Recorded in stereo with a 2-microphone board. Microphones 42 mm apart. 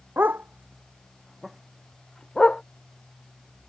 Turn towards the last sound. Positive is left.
turn(degrees=20)  # may be behind; listen again after turning